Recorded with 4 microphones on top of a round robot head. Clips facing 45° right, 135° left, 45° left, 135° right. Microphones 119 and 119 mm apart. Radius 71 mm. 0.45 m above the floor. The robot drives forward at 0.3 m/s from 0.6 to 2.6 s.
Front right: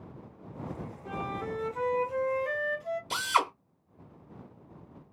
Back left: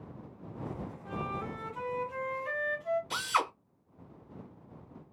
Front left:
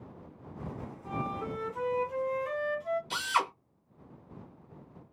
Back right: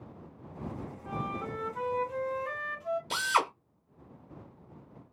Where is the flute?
30° right, 1.7 m; by 3.0 s 40° right, 1.4 m.